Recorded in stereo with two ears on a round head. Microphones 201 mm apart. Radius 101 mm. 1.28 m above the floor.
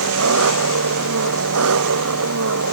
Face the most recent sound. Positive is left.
turn(degrees=-70)  # may be behind; listen again after turning